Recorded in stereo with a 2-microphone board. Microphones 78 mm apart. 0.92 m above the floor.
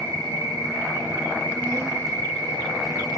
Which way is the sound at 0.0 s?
55° right (ahead or behind).